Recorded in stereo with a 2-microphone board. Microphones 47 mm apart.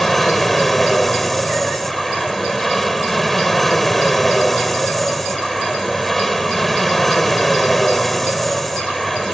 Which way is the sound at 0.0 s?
5° left (ahead or behind).